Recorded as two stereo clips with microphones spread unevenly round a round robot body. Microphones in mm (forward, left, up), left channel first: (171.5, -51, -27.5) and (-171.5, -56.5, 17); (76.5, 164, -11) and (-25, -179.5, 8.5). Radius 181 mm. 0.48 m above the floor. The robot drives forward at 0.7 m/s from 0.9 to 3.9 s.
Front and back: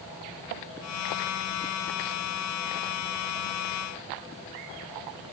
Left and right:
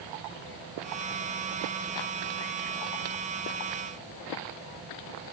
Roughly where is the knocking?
I don't hear knocking.